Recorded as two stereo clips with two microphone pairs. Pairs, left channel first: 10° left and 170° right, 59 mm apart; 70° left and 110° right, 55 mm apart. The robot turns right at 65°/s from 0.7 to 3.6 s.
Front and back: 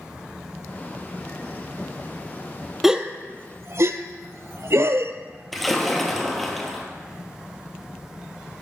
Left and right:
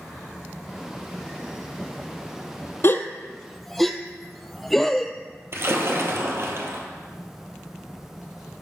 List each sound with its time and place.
2.8 s a gasp: 110° left, 0.6 m; by 5.1 s 160° left, 0.6 m
5.5 s a splash: 80° right, 1.6 m